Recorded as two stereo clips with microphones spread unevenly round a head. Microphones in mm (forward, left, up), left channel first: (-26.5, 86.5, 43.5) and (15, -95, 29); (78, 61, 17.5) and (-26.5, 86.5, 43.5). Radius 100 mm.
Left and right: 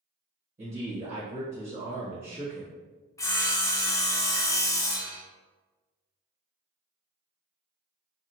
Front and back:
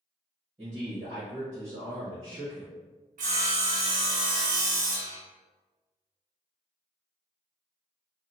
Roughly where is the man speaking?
Behind right.